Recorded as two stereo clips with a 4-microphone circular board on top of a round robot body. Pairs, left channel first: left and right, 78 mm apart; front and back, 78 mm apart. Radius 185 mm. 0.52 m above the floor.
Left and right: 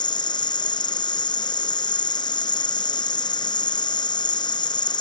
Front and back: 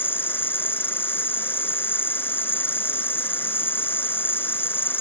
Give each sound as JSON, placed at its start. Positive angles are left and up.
{"t": 0.0, "sound": "an insect", "azimuth_deg": 65}